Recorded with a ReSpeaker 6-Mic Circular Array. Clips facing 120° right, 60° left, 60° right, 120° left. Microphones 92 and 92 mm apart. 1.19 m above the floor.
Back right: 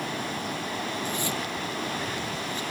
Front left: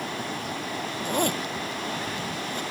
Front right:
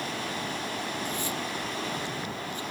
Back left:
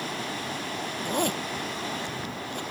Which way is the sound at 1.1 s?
95° left.